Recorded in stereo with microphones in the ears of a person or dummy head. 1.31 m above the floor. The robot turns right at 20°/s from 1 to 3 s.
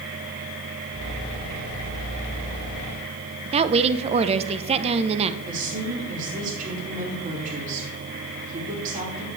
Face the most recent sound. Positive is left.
turn(degrees=-35)  # may be behind; listen again after turning